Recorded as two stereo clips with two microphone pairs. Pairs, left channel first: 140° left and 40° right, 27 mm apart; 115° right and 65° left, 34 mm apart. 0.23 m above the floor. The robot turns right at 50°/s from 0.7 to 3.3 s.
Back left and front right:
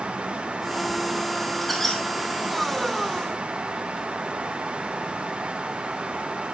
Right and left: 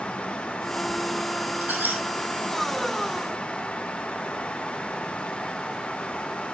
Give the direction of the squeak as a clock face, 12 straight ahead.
10 o'clock.